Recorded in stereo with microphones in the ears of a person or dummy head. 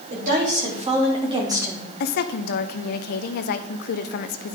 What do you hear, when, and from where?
0.1 s a woman speaking: 50° right (ahead or behind), 3.5 m; by 1.9 s 10° right (ahead or behind), 1.7 m
2.0 s a woman speaking: 50° left (ahead or behind), 0.8 m